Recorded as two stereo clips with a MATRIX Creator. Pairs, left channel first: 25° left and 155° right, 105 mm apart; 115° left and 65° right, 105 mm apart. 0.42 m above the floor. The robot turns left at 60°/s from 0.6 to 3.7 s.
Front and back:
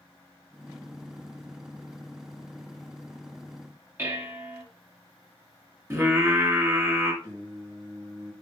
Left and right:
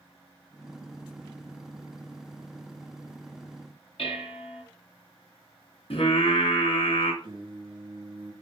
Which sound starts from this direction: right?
Singing, at 7.2 s.